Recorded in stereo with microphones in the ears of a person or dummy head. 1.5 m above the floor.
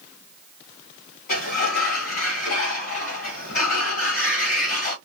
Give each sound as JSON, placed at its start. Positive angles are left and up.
{"t": 1.3, "sound": "a sliding door", "side_deg": 45, "distance_m": 1.2}